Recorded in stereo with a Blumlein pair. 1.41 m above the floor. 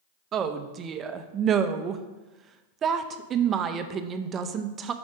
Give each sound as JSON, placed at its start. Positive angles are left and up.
{"t": 0.3, "sound": "a woman speaking", "azimuth_deg": -25, "distance_m": 0.6}